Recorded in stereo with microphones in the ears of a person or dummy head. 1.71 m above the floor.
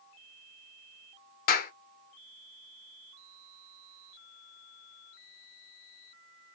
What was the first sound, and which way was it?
A clap, 50° left (ahead or behind).